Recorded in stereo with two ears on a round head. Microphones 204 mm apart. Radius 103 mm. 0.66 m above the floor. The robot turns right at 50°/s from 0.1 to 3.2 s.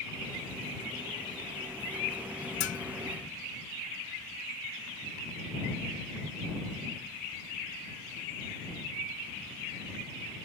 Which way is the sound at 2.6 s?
45° left (ahead or behind).